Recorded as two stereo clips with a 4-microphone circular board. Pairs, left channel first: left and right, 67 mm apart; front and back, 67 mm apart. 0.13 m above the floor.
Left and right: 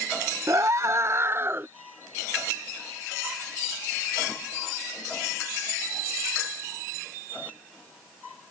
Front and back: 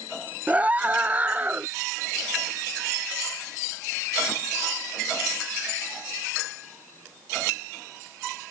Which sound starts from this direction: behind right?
A scream, at 0.5 s.